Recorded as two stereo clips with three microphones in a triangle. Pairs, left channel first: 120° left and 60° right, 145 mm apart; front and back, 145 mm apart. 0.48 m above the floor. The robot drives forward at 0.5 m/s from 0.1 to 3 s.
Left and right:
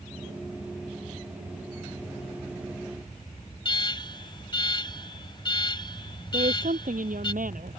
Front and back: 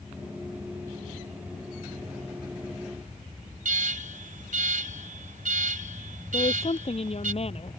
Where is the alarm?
175° left.